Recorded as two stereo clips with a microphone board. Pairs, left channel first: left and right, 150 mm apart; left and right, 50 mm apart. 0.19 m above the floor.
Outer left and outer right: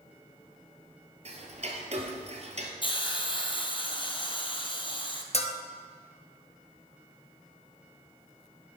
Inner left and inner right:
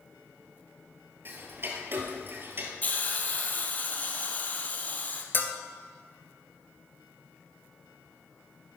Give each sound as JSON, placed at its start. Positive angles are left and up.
{"t": 1.2, "sound": "ticking", "side_deg": -45, "distance_m": 1.7}
{"t": 2.8, "sound": "a hiss", "side_deg": 35, "distance_m": 1.3}
{"t": 5.3, "sound": "a bell", "side_deg": 45, "distance_m": 1.0}